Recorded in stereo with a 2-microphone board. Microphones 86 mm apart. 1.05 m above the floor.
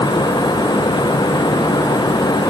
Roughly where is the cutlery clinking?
I don't hear cutlery clinking.